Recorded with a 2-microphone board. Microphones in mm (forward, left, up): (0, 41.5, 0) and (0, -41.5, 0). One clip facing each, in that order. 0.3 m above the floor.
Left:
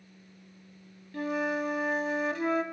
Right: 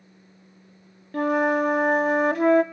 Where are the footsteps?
No footsteps in this recording.